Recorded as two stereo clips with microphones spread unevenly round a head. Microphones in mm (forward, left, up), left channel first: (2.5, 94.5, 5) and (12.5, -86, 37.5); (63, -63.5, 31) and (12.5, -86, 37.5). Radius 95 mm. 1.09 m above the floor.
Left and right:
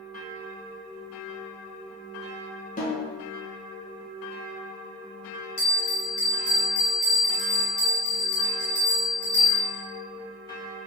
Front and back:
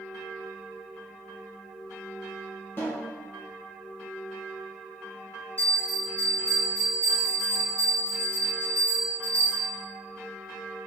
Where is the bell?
85° left, 1.8 m.